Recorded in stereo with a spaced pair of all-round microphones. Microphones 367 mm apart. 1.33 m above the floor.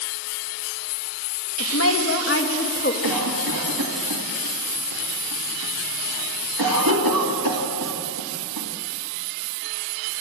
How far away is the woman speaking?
About 2 m.